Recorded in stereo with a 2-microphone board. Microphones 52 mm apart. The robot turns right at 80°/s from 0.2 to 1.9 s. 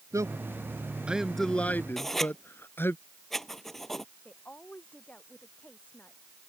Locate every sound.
0.1 s a man speaking: 75° right (ahead or behind); by 3.0 s 45° left (ahead or behind)
2.0 s writing: 5° left (ahead or behind)
4.2 s a woman speaking: 25° left (ahead or behind)